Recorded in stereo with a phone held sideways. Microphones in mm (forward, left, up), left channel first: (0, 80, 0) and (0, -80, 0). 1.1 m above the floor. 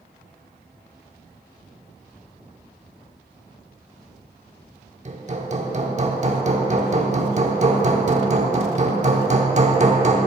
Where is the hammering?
45° right (ahead or behind), 0.9 m.